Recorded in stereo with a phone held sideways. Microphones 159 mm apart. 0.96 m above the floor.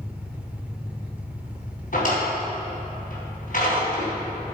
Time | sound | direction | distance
0.0 | an engine running | 10° right (ahead or behind) | 1.4 m
1.9 | a drawer | 60° left (ahead or behind) | 3.5 m